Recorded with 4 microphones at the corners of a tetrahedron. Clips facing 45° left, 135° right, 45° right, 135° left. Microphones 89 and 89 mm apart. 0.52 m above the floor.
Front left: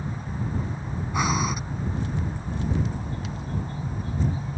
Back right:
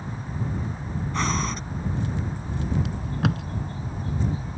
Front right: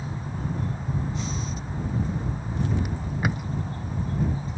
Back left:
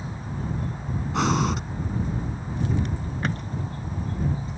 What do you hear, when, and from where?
1.1 s breathing: 125° left
2.9 s tape being pulled: 125° right